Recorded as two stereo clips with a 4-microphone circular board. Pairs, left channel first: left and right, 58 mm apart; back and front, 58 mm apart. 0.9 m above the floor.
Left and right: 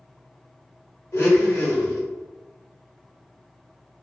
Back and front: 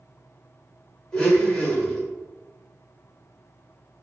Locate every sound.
1.1 s a blender: 105° left, 1.1 m